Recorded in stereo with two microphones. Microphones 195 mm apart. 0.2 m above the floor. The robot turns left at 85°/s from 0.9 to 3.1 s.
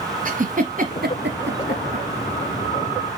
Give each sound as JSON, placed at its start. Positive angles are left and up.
{"t": 0.2, "sound": "a giggle", "side_deg": -45, "distance_m": 1.9}